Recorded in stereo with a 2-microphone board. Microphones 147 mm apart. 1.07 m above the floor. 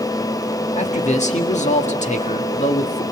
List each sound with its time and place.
0.7 s a man speaking: 50° left (ahead or behind), 1.6 m